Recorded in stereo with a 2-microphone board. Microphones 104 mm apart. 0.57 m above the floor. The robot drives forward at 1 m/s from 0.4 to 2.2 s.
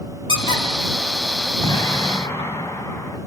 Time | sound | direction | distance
0.3 | a squeak | 50° left (ahead or behind) | 3 m
1.6 | an explosion | 35° left (ahead or behind) | 1.6 m